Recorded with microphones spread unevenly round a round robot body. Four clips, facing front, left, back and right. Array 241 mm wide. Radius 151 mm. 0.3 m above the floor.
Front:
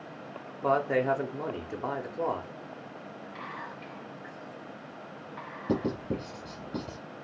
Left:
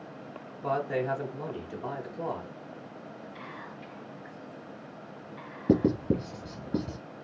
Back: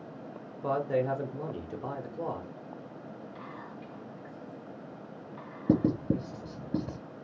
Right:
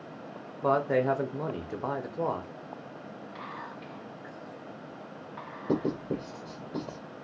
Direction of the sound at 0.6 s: 60° right.